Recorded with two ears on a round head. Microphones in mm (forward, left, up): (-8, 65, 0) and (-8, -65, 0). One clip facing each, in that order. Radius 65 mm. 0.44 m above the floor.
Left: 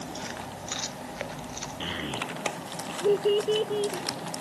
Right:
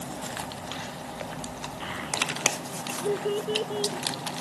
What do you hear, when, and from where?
1.8 s a child speaking: 40° left (ahead or behind); by 4.4 s 15° left (ahead or behind)